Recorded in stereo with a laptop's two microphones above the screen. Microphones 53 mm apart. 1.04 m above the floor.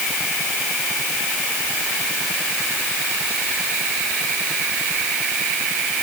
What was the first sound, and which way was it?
Only background noise.